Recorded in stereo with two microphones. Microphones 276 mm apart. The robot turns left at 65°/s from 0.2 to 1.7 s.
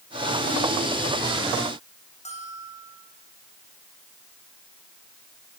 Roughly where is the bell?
Left.